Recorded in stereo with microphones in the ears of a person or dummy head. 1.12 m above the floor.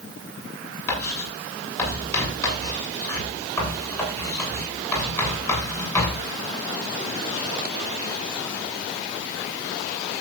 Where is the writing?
20° left (ahead or behind), 8 m.